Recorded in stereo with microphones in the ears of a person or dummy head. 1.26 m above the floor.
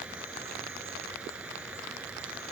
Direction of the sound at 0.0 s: 10° right (ahead or behind).